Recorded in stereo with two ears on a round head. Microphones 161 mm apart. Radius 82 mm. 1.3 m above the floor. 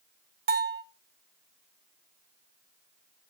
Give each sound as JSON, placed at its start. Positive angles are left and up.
{"t": 0.5, "sound": "a bell", "side_deg": -60, "distance_m": 1.3}